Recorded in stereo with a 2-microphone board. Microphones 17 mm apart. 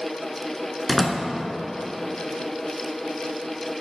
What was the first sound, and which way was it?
A door slam, 10° left (ahead or behind).